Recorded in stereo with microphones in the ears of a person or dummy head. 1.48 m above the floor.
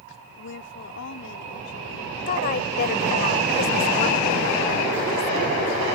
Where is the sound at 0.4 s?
70° left (ahead or behind).